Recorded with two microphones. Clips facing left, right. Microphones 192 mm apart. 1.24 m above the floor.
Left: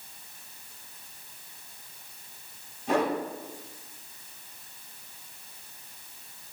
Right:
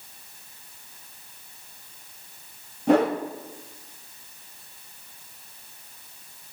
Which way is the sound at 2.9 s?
65° right (ahead or behind).